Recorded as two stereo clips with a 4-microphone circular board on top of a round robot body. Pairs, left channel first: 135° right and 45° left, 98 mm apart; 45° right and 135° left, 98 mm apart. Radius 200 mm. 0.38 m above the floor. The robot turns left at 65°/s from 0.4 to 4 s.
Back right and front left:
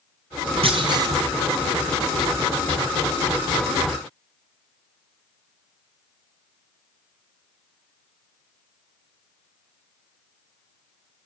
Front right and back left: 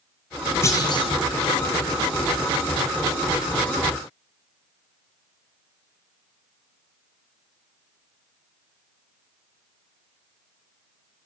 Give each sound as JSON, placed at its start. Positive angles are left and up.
{"t": 0.6, "sound": "a clunk", "azimuth_deg": 20, "distance_m": 1.1}